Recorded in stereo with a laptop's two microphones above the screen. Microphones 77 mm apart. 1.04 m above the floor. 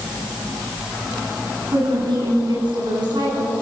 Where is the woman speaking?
75° right (ahead or behind), 8 m; by 3.5 s 70° right (ahead or behind), 9.5 m.